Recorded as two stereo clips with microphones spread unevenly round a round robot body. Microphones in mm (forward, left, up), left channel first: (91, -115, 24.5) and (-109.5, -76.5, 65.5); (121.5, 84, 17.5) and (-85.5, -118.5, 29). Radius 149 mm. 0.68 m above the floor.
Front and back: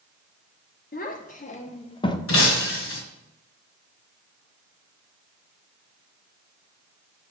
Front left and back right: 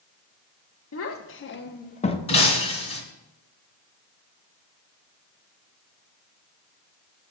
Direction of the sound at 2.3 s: 25° right.